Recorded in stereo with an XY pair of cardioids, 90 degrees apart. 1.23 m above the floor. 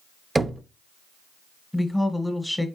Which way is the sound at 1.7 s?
10° left.